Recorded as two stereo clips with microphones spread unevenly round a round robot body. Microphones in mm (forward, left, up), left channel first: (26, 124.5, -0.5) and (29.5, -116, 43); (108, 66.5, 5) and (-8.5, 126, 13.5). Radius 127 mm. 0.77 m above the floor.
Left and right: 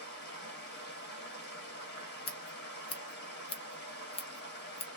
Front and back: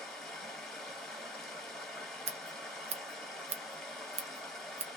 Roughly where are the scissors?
Behind left.